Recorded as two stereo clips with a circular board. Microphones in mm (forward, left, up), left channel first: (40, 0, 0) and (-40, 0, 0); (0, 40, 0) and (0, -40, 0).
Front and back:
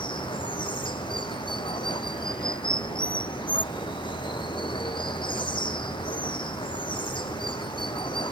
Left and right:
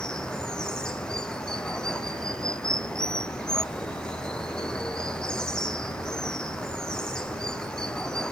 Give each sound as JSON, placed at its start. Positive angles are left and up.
{"t": 0.0, "sound": "running water", "azimuth_deg": 10}